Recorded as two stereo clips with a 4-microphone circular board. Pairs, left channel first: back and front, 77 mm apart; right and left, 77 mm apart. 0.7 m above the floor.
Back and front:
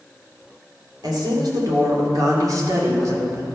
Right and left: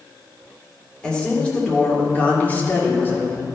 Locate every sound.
1.0 s a woman speaking: 15° right, 2.5 m; by 3.5 s 40° right, 1.8 m